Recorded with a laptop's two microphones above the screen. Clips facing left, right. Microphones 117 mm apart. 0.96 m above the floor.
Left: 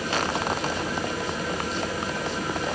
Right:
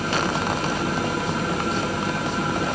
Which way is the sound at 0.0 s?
75° right (ahead or behind).